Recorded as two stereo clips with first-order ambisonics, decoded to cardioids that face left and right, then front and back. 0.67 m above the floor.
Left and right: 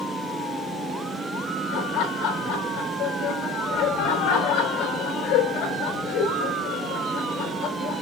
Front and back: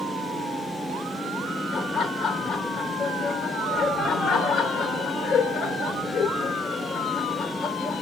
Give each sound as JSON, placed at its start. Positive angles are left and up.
{"t": 1.7, "sound": "laughter", "azimuth_deg": 65, "distance_m": 4.5}